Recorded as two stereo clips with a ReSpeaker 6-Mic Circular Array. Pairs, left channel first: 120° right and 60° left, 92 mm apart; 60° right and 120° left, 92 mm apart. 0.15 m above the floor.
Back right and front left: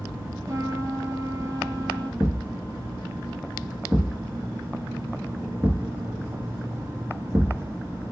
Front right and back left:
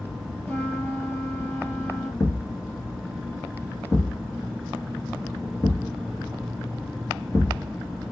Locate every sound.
0.5 s a trumpet: 5° left, 2 m
2.2 s a thud: 15° right, 1.2 m